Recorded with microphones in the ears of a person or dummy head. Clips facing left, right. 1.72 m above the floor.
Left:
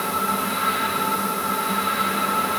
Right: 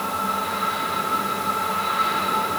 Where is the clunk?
No clunk in this recording.